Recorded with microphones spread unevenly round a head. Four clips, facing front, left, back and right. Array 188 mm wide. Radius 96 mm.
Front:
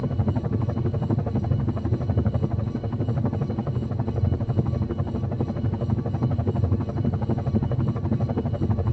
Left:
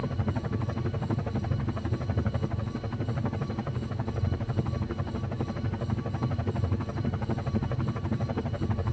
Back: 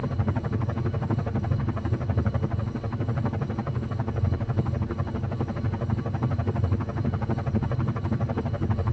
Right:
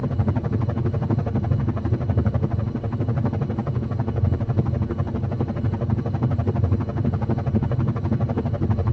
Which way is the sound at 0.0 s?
60° right.